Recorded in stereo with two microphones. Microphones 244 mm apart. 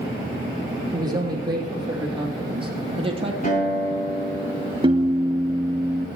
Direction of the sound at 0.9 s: 15° right (ahead or behind).